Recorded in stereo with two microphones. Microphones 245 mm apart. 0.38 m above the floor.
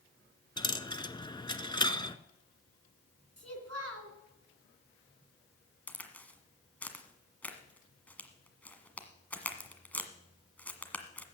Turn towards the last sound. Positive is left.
turn(degrees=5)  # may be behind; listen again after turning